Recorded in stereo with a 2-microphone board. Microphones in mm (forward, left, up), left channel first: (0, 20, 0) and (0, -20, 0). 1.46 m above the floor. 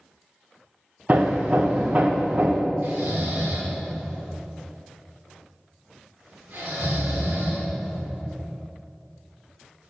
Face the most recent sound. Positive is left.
turn(degrees=-55)  # may be behind; listen again after turning